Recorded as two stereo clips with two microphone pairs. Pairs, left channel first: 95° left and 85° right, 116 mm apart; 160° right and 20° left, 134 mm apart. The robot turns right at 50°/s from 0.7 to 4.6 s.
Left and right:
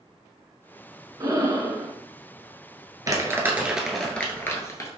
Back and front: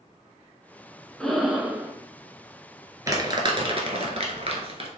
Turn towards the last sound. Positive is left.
turn(degrees=40)